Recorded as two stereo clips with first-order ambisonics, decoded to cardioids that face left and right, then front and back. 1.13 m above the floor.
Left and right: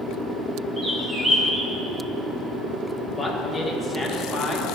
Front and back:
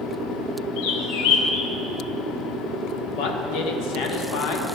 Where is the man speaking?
Straight ahead, 1.5 m.